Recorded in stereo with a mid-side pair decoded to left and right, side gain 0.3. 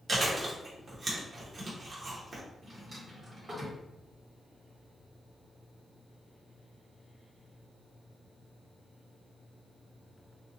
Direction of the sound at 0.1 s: 65° right.